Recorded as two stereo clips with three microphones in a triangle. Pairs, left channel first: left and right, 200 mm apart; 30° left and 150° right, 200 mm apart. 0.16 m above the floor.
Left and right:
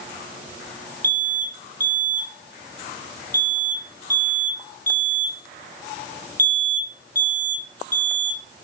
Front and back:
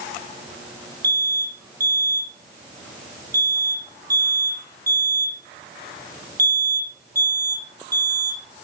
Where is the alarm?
100° left, 1.6 m.